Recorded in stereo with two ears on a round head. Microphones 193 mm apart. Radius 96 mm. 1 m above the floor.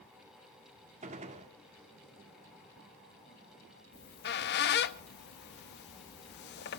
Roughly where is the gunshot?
Right.